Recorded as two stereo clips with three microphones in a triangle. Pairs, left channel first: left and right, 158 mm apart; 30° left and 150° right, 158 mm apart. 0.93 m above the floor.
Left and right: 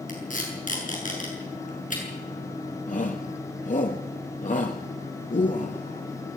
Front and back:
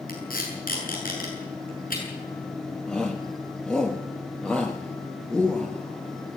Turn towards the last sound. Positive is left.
turn(degrees=115)